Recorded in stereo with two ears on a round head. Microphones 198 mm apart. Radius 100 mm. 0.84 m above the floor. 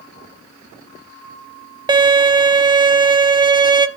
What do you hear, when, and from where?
1.9 s a violin: 20° right (ahead or behind), 0.8 m